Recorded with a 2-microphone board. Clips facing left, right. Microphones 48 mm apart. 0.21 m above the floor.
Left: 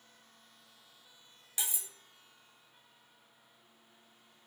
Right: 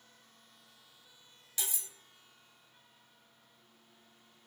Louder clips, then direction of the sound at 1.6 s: Left 1 dB; 20° left (ahead or behind).